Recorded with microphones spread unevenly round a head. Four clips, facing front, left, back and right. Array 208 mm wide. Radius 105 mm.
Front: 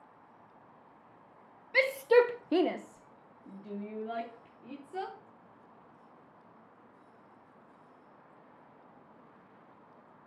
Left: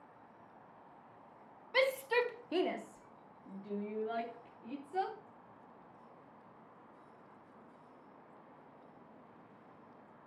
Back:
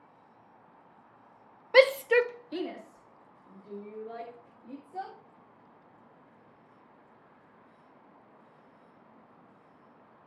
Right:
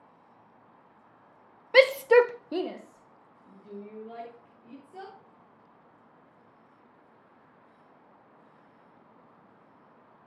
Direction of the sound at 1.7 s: 120° right.